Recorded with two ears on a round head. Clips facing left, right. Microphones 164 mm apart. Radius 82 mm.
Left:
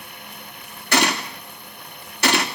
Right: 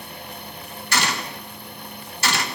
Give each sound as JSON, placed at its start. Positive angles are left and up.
{"t": 0.9, "sound": "a gunshot", "side_deg": 50, "distance_m": 3.0}